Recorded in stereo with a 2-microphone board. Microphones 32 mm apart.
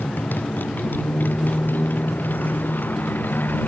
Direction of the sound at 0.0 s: 75° left (ahead or behind).